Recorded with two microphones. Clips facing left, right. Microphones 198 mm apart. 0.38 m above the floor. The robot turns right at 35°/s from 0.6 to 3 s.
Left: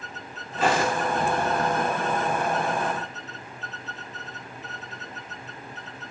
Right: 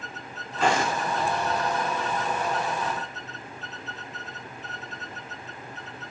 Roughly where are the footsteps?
Centre.